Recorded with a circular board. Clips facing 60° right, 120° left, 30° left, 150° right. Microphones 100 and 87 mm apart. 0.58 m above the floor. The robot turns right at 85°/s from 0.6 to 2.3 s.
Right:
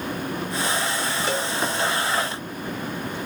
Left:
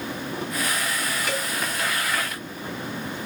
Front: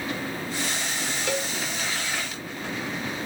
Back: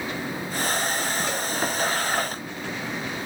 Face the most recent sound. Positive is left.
turn(degrees=90)